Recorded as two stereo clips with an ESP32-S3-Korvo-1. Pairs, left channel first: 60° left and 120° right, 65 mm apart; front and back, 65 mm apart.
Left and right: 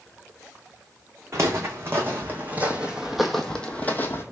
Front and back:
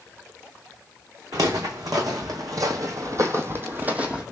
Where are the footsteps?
165° right, 1.4 m; by 4.2 s 110° left, 0.8 m.